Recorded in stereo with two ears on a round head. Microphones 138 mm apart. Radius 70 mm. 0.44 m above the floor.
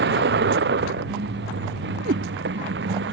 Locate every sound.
0.0 s a vehicle: 85° right; by 3.1 s 90° right
2.0 s a cat meowing: 70° right (ahead or behind)